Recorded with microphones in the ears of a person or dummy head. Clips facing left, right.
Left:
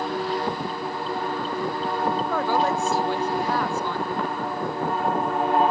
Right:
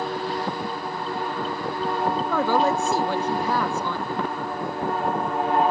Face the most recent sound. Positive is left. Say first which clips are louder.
# right 4 dB
turn(degrees=-70)  # may be behind; listen again after turning